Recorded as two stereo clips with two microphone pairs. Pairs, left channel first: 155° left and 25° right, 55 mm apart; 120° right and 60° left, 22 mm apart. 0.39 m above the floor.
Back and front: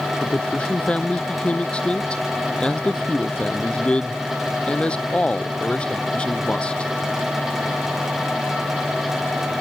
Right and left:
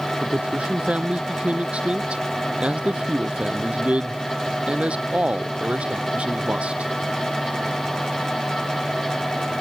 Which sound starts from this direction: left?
A man speaking, at 0.2 s.